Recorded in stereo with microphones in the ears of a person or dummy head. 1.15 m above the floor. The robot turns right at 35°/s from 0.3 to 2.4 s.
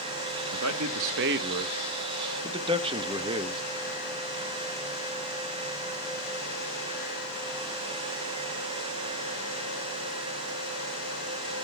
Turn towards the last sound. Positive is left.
turn(degrees=-25)